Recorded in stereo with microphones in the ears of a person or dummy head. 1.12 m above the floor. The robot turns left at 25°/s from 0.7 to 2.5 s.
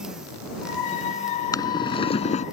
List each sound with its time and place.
1.5 s boiling: 20° left (ahead or behind); by 2.5 s 45° left (ahead or behind)